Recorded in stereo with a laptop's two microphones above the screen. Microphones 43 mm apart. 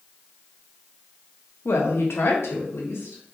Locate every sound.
1.6 s a woman speaking: 70° left (ahead or behind), 0.7 m; by 3.3 s 80° left, 1.4 m